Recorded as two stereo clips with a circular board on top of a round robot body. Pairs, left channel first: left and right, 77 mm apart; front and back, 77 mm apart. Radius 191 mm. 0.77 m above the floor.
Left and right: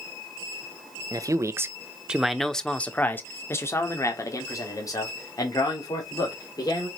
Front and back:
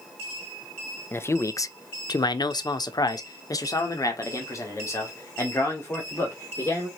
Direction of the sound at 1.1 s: 55° right.